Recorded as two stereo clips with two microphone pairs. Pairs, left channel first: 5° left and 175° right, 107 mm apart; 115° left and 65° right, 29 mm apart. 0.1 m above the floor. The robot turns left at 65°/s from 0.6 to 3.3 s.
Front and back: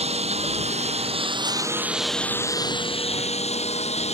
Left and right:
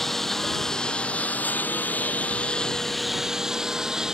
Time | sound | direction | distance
0.0 | a lawn mower | 160° right | ?